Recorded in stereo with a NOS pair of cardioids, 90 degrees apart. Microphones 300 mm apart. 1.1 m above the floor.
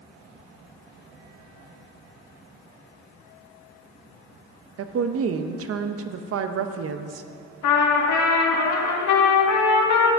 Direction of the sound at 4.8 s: 50° right.